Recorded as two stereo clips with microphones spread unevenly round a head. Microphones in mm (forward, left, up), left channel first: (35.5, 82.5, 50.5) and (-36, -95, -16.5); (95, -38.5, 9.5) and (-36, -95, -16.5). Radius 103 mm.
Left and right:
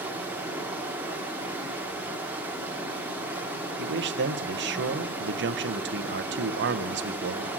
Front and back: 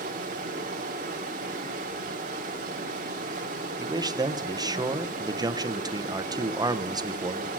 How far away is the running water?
About 1.2 m.